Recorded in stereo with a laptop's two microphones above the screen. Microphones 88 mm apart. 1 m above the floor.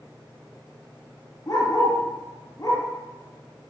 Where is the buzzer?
I don't hear a buzzer.